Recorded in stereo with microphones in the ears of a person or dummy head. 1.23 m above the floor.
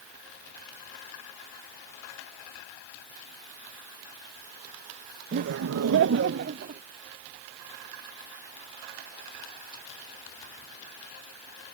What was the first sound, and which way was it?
Laughter, 40° right (ahead or behind).